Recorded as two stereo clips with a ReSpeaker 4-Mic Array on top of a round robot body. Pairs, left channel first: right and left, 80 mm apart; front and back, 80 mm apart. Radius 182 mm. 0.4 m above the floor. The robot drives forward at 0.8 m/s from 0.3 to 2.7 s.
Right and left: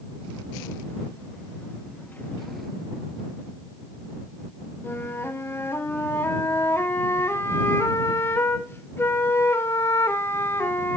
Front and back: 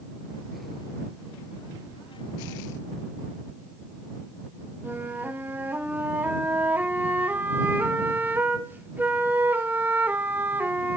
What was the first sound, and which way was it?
A flute, 130° right.